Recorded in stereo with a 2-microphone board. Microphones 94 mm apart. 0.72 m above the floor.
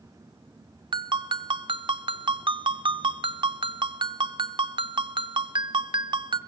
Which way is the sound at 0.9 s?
55° right (ahead or behind).